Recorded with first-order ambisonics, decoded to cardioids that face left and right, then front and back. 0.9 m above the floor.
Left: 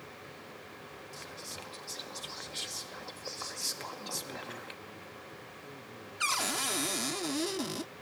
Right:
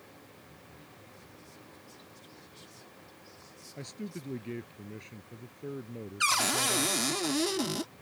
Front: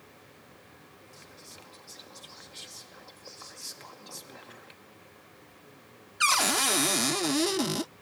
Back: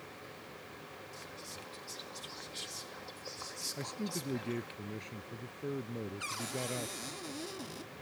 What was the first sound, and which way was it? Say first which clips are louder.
Whispering: left 9 dB, back 1 dB; 90° left.